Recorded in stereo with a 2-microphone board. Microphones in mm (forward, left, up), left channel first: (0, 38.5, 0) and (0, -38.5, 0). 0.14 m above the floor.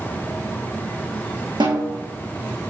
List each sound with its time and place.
1.6 s a snare drum: 80° right, 3 m